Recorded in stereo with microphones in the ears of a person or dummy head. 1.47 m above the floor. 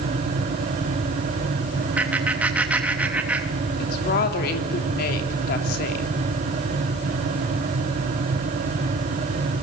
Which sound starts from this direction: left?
A woman speaking, at 3.8 s.